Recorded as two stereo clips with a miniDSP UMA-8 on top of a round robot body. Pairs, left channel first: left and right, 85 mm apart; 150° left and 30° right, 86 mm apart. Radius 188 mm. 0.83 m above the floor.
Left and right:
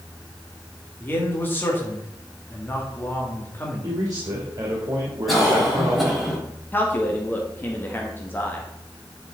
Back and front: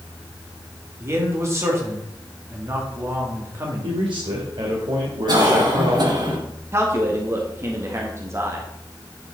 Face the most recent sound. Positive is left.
turn(degrees=25)